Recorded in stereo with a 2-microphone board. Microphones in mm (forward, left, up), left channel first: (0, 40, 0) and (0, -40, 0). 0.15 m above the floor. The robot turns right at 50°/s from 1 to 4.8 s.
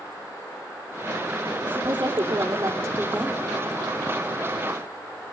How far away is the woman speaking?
About 4.5 m.